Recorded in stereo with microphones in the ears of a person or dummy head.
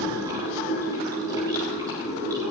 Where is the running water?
20° right (ahead or behind), 6 m.